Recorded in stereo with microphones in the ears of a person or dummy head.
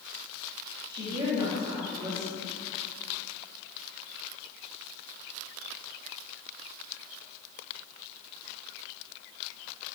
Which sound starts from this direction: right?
A woman speaking, at 0.9 s.